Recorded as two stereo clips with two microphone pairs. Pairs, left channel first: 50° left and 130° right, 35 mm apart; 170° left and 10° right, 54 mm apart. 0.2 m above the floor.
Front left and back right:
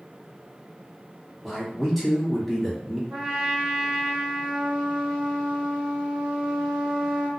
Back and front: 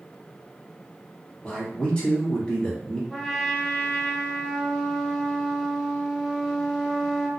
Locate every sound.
1.4 s a man speaking: 145° left, 1.1 m
3.1 s a trumpet: 125° right, 1.4 m